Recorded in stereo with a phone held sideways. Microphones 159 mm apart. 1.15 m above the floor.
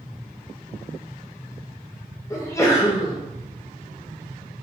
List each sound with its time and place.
2.3 s a sneeze: 20° left (ahead or behind), 1.1 m